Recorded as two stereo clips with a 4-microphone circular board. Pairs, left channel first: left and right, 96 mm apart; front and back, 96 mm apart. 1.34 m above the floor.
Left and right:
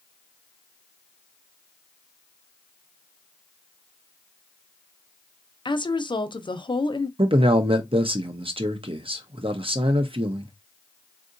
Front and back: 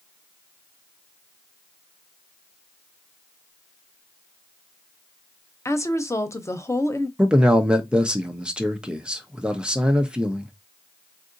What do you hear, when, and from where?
5.7 s a woman speaking: 60° left, 0.6 m
7.2 s a man speaking: 100° right, 0.7 m